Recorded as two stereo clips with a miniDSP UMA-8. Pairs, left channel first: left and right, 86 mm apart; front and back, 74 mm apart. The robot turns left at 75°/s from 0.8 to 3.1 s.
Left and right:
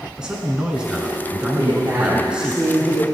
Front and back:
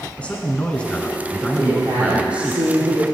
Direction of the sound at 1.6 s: 115° right.